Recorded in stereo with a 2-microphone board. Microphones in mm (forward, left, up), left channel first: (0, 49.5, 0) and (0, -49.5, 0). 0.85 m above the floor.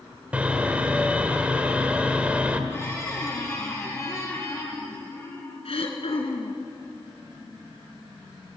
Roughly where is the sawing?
Centre.